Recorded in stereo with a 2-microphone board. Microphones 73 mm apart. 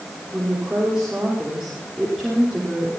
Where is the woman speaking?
15° right (ahead or behind), 5 m; by 2.9 s centre (ahead or behind), 4.5 m.